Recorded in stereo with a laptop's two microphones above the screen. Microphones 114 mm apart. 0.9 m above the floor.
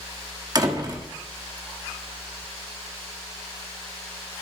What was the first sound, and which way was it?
A door slam, 35° right (ahead or behind).